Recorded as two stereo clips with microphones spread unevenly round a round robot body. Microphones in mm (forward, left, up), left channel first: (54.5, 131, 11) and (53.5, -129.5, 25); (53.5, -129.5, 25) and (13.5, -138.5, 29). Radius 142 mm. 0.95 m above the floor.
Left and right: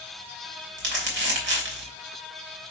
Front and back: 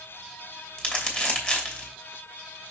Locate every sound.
0.8 s crumpling: 40° right, 2.5 m